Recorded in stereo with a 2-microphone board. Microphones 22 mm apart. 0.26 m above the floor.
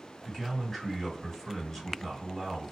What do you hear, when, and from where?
0.2 s a man speaking: 15° left (ahead or behind), 1.9 m